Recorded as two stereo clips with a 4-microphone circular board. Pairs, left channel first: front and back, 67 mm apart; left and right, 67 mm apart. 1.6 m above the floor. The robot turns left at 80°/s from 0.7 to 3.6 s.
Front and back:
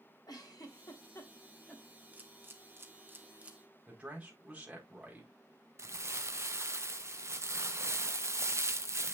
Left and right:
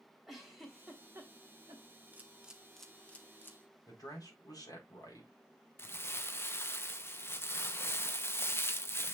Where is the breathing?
I don't hear breathing.